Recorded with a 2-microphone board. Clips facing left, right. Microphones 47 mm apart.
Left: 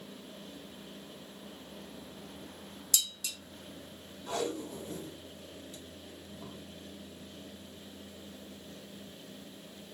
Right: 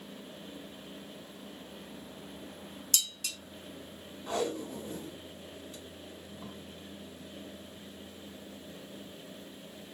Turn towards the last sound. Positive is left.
turn(degrees=-35)  # may be behind; listen again after turning